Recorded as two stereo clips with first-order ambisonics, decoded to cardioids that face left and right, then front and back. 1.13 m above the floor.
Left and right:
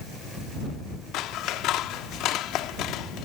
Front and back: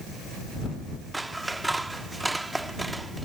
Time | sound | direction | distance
1.1 | scissors | 100° left | ?